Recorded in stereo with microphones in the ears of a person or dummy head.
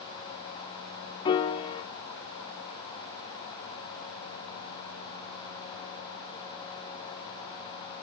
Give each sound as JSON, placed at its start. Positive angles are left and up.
{"t": 1.2, "sound": "a piano", "side_deg": 35, "distance_m": 1.1}